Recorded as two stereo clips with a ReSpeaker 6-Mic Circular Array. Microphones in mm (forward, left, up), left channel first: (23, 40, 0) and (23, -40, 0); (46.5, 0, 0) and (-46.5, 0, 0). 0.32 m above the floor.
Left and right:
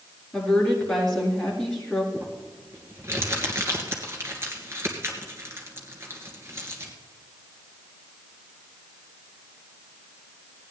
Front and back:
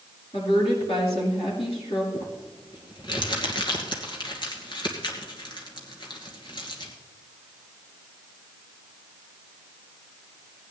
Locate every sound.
0.3 s a woman speaking: 10° left, 5 m
2.1 s crumpling: 35° right, 2.5 m